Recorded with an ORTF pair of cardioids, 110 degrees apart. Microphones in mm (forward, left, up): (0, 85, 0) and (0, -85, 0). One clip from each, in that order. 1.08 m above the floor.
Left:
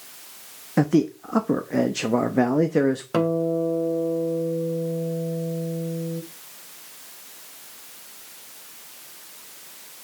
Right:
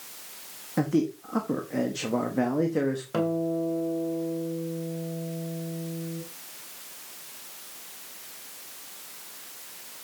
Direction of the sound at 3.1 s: 35° left.